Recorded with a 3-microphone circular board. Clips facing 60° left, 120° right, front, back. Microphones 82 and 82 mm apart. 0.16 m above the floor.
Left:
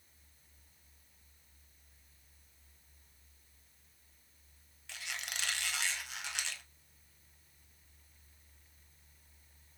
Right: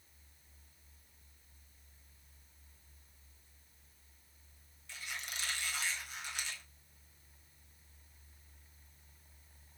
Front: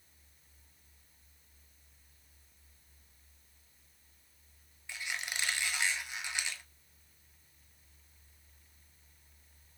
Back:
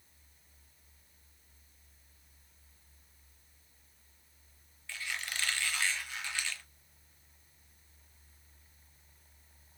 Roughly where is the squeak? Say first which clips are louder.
Left 1 dB, even; left.